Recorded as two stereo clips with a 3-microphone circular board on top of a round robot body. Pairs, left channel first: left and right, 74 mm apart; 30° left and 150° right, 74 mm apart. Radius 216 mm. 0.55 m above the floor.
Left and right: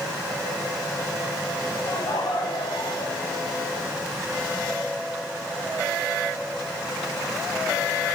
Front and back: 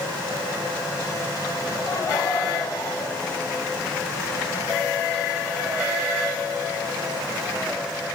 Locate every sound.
1.9 s laughter: 75° left, 5.5 m; by 4.1 s 95° left, 7 m